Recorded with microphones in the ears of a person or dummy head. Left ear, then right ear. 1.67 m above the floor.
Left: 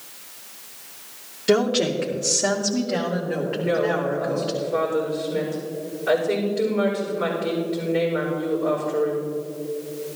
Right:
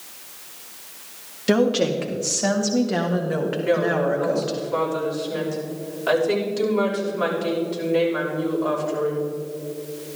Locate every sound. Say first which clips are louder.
1.5 s a woman speaking: even; centre (ahead or behind), 1.2 m; by 4.5 s 45° right (ahead or behind), 2.5 m
3.5 s a woman speaking: right 1 dB; 80° right, 5.5 m